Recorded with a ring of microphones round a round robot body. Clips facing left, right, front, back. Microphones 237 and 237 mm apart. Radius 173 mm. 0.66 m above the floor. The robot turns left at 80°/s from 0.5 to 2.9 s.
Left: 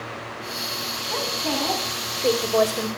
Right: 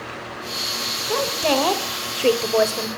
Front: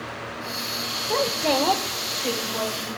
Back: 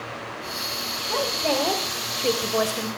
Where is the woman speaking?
50° right, 2.5 m; by 2.9 s 165° left, 2.5 m.